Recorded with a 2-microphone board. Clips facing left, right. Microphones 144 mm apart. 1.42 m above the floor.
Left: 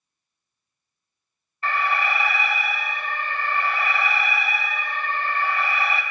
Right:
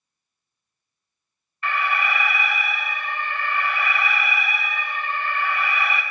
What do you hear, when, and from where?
1.6 s an alarm: 35° left (ahead or behind), 1.3 m